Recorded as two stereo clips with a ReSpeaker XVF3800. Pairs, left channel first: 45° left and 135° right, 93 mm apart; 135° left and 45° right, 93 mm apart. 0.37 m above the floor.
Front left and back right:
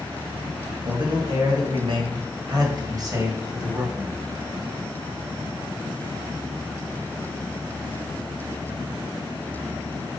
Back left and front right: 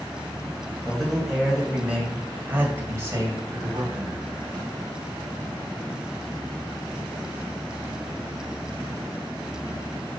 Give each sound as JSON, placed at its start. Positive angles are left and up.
{"t": 0.8, "sound": "a man speaking", "azimuth_deg": -135, "distance_m": 2.5}